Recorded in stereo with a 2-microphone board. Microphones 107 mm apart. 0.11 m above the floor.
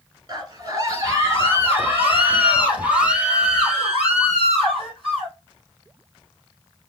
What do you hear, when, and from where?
0.3 s a scream: 35° right (ahead or behind), 1.7 m; by 5.3 s centre (ahead or behind), 3.5 m